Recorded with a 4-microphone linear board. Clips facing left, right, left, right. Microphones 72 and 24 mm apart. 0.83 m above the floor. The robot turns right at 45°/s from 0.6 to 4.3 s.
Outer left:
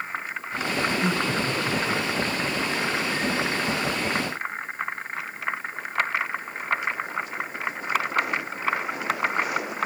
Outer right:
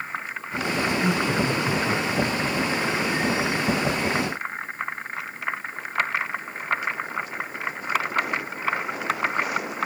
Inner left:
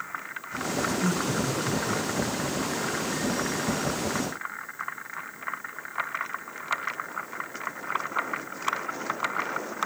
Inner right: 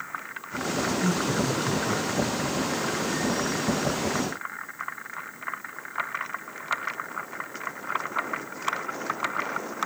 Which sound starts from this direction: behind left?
Laughter, at 1.0 s.